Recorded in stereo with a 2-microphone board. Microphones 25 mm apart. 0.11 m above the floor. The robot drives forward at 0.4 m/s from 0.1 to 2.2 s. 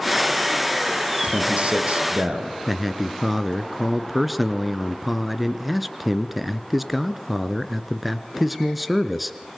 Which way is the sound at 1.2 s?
55° right (ahead or behind).